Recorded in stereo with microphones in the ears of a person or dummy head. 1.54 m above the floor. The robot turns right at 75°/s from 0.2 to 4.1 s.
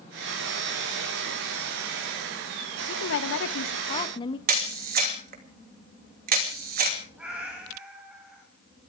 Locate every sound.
2.9 s a woman speaking: 55° left, 1.4 m; by 4.4 s 145° left, 1.4 m
4.5 s a camera shutter: 45° right (ahead or behind), 2.5 m
7.2 s a cat meowing: 10° right (ahead or behind), 6 m